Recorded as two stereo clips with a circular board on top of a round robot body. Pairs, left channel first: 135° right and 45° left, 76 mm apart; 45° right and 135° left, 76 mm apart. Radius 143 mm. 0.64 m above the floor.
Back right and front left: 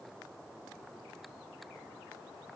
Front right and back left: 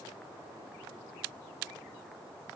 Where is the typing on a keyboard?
I don't hear typing on a keyboard.